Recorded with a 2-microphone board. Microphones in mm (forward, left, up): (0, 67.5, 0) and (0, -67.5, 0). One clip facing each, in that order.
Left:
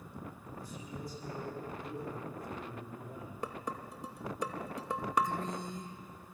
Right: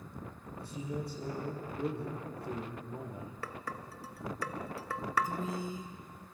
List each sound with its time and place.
0.6 s a man speaking: 65° right (ahead or behind), 6 m
3.4 s dishes clattering: 20° left (ahead or behind), 0.9 m
5.2 s a woman speaking: 5° right (ahead or behind), 2 m